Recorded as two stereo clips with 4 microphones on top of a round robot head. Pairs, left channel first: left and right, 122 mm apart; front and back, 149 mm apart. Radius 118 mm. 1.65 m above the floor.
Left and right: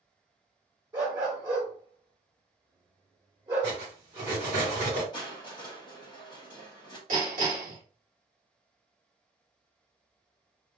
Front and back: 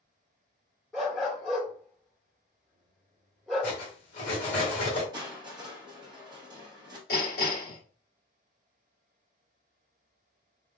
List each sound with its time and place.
0.9 s a dog barking: 85° right, 1.3 m
3.6 s cutlery clinking: 20° right, 2 m
5.1 s crushing: 125° left, 1.1 m
7.1 s hammering: 45° right, 2.5 m